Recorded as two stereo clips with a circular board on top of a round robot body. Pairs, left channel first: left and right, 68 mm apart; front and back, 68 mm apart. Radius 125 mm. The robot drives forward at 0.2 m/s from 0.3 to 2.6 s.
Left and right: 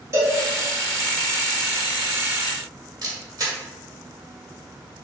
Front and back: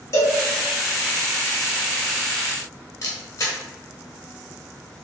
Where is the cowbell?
45° right, 3 m.